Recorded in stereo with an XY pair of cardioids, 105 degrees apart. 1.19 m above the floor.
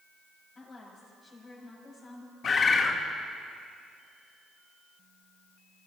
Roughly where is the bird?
Ahead left.